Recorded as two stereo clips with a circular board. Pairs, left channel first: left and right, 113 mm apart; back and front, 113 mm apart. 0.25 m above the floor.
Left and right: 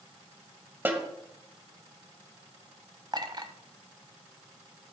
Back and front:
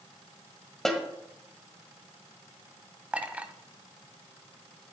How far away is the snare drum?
About 1.6 m.